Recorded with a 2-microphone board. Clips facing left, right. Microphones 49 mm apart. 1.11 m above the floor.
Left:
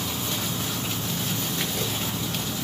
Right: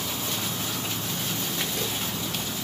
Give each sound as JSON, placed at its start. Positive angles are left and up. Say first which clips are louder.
{"t": 0.0, "sound": "an insect", "louder": "left 1 dB", "side_deg": 5, "distance_m": 0.9}